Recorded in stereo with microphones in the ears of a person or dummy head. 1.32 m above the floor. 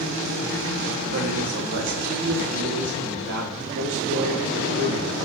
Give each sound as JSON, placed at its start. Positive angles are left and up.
{"t": 1.1, "sound": "a man speaking", "side_deg": -70, "distance_m": 3.0}